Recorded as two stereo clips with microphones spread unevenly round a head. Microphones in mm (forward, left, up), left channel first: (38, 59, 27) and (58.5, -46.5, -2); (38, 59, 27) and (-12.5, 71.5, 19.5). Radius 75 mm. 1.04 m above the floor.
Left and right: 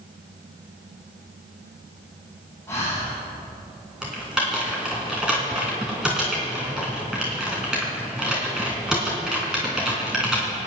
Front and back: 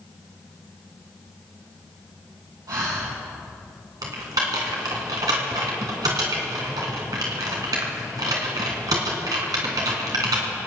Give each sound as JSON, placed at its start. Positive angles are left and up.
{"t": 2.7, "sound": "breathing", "azimuth_deg": 175, "distance_m": 5.5}
{"t": 4.0, "sound": "typing on a keyboard", "azimuth_deg": -170, "distance_m": 2.5}